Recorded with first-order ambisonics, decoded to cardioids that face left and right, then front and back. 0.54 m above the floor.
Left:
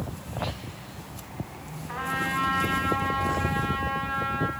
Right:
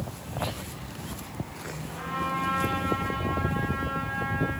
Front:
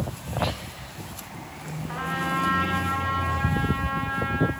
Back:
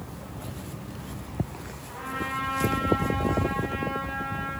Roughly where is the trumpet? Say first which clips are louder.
Left 3 dB, front 4 dB; ahead left.